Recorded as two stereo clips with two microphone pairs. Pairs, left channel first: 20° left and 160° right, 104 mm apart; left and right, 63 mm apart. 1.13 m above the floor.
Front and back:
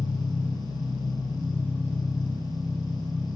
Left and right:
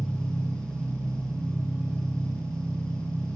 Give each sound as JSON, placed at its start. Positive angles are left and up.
{"t": 0.0, "sound": "an engine running", "azimuth_deg": 155, "distance_m": 3.5}